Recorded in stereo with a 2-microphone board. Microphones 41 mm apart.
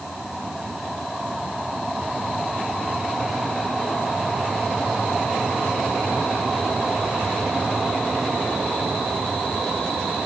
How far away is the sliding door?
I don't hear a sliding door.